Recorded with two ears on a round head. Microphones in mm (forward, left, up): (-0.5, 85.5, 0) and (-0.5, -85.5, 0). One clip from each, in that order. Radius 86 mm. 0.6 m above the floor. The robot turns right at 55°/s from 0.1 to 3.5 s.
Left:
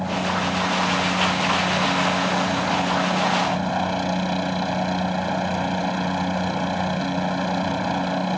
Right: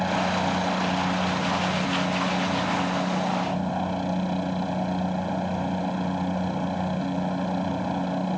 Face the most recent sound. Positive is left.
turn(degrees=125)